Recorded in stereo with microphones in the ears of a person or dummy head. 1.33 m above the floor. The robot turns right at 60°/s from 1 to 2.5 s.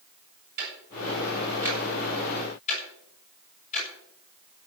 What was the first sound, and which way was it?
Ticking, 50° right (ahead or behind).